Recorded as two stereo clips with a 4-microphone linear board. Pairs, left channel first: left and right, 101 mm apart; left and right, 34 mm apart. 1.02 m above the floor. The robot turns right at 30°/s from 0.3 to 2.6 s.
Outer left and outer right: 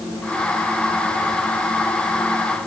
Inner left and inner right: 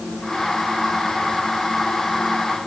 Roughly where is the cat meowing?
No cat meowing in this recording.